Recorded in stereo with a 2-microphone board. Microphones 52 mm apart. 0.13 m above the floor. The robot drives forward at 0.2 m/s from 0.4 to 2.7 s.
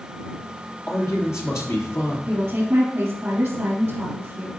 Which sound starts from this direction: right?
A woman speaking, at 2.3 s.